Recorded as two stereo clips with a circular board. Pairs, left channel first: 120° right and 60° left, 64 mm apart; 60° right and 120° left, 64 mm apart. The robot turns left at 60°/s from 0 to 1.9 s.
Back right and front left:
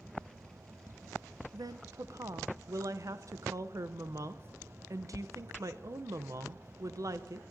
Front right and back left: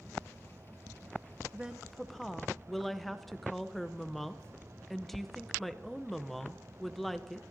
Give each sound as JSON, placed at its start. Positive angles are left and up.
{"t": 1.5, "sound": "a woman speaking", "azimuth_deg": 50, "distance_m": 0.5}